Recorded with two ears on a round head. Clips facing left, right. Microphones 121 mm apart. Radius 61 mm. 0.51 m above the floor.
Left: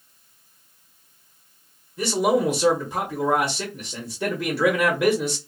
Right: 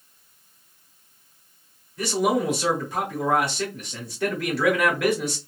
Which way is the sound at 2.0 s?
10° left (ahead or behind).